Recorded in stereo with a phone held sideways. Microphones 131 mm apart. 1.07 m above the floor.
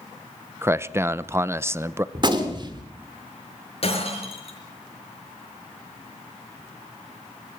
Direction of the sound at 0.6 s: 20° right (ahead or behind).